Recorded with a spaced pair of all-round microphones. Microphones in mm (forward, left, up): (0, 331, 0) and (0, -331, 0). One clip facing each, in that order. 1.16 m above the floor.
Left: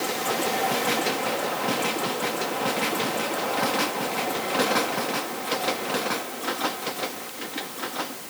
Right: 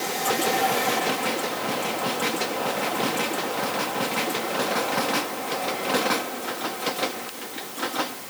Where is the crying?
No crying in this recording.